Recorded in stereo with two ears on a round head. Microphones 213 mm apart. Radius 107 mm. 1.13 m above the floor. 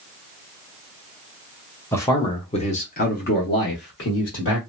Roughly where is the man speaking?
Centre.